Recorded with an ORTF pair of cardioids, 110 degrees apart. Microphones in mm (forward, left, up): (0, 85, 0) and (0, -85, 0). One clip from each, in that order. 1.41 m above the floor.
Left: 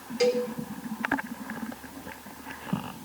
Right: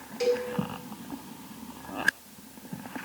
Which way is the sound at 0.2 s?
25° left.